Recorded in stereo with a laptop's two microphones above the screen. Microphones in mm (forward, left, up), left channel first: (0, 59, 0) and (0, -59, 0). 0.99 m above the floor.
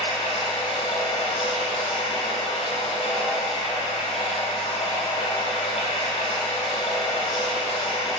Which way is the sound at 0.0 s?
55° left (ahead or behind).